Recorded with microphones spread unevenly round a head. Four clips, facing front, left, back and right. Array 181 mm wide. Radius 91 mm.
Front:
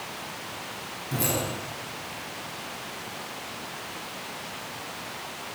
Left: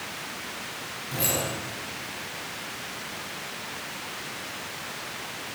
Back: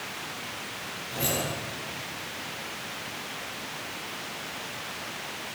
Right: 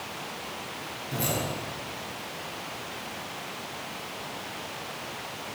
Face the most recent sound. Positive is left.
turn(degrees=0)